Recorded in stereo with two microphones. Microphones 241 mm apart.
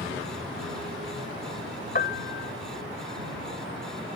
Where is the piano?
40° left (ahead or behind).